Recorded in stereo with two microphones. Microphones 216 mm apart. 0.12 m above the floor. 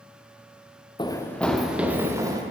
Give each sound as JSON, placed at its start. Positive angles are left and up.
{"t": 1.0, "sound": "running footsteps", "side_deg": 20, "distance_m": 0.8}